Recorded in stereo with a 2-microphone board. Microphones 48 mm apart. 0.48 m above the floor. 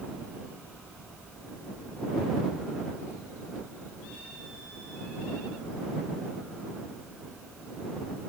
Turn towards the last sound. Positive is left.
No sound to turn to.